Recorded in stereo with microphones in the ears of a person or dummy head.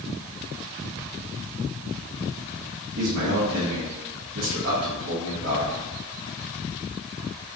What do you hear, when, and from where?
3.0 s a man speaking: 70° right (ahead or behind), 1.1 m